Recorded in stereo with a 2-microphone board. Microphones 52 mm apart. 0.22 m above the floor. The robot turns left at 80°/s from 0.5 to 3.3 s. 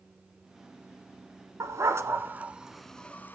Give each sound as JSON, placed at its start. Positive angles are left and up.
{"t": 1.6, "sound": "a dog barking", "side_deg": -65, "distance_m": 1.1}